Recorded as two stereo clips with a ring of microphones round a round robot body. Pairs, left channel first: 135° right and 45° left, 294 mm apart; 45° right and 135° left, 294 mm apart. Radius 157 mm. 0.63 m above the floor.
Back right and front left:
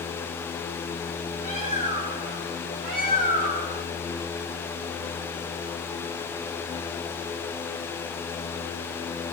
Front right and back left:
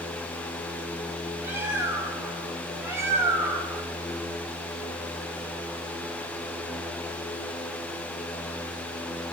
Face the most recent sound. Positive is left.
turn(degrees=55)